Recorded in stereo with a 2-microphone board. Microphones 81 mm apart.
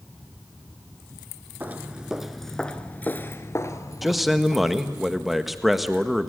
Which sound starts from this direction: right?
Footsteps, at 1.6 s.